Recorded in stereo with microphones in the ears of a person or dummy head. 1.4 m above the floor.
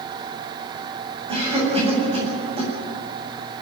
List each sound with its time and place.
1.3 s a cough: 25° right (ahead or behind), 8 m